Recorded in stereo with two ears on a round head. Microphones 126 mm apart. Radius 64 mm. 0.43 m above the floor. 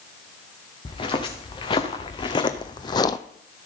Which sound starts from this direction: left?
Footsteps, at 0.8 s.